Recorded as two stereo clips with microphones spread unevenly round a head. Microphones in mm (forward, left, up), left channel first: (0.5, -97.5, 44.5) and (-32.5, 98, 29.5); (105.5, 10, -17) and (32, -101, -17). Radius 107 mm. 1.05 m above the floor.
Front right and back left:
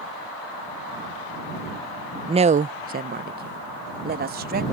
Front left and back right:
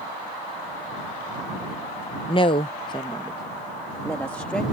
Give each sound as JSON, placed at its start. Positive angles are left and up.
{"t": 2.3, "sound": "a woman speaking", "azimuth_deg": 70}